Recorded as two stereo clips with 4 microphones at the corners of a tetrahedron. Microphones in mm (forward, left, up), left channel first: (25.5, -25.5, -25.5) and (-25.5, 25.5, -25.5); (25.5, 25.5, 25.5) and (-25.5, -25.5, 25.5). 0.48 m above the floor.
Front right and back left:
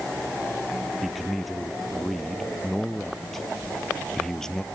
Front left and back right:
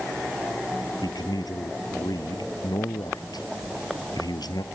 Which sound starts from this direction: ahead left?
A man speaking, at 1.0 s.